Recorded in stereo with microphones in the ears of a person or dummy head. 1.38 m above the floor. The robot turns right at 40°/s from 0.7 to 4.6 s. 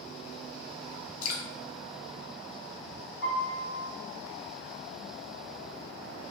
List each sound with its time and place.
1.2 s dripping: 50° left (ahead or behind), 0.6 m; by 1.4 s 60° left (ahead or behind), 0.6 m
3.2 s a piano: 60° left (ahead or behind), 1.2 m; by 3.8 s 55° left (ahead or behind), 1.2 m